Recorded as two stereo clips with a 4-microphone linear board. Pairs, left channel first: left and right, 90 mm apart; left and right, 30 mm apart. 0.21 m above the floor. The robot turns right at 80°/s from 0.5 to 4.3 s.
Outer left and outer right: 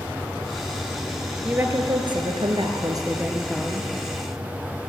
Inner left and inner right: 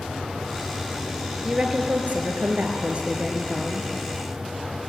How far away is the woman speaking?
About 3.5 m.